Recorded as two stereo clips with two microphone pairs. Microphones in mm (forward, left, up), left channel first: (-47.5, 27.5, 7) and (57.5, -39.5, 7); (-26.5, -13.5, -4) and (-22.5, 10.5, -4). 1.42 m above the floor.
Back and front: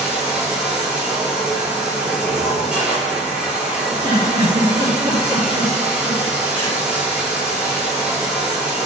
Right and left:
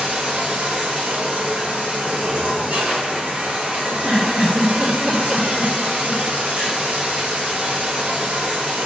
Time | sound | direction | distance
0.0 | running water | 50° left | 3 m
3.9 | a giggle | 25° left | 3.5 m